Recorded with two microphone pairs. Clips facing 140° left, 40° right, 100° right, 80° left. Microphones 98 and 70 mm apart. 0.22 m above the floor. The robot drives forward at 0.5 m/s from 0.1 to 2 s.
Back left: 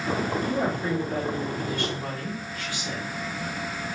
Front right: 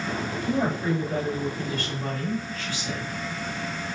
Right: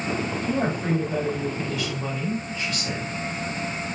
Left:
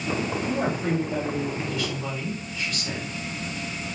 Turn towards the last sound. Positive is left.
turn(degrees=-155)